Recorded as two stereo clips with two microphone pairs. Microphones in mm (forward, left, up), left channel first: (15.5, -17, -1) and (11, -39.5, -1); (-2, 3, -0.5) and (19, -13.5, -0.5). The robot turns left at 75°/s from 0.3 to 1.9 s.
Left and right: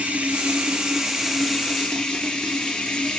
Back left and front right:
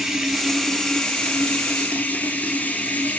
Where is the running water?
115° right, 3 m; by 3.2 s 125° left, 3 m.